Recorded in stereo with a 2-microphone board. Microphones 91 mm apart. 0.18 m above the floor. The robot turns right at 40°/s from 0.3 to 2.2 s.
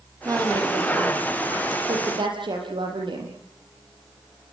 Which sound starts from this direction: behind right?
A woman speaking, at 0.2 s.